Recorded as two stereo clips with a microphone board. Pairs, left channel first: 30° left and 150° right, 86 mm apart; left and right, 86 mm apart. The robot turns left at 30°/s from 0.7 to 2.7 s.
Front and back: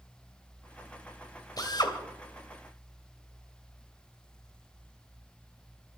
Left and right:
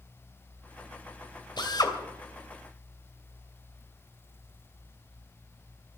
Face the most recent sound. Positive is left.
turn(degrees=30)